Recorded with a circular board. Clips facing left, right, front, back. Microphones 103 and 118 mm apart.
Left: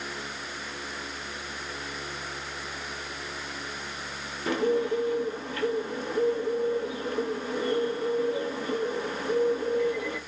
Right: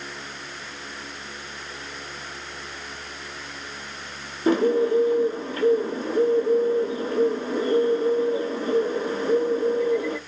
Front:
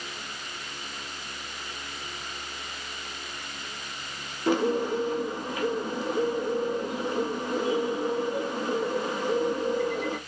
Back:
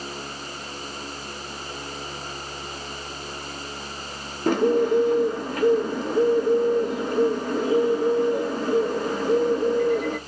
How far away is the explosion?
No explosion in this recording.